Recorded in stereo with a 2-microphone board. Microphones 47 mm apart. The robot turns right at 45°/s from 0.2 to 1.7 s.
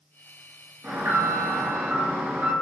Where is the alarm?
105° right, 1.5 m; by 2.5 s 65° right, 1.5 m.